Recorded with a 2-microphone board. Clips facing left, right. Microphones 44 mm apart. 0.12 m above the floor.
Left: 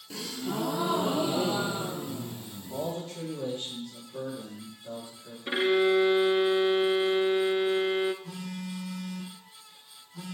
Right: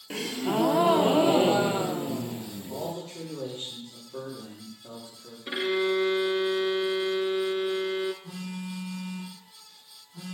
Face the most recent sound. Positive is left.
turn(degrees=-10)  # may be behind; listen again after turning